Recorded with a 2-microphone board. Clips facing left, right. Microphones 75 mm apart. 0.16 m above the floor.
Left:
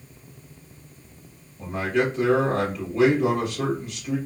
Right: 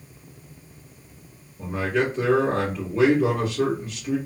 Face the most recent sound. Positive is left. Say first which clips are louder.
# even
turn(degrees=-20)  # may be behind; listen again after turning